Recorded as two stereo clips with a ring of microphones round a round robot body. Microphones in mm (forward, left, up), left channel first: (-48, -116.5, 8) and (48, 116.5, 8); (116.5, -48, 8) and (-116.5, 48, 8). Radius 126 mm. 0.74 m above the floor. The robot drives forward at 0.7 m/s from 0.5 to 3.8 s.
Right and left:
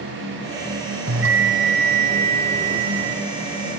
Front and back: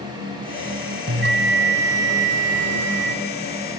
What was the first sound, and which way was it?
A bell, 105° left.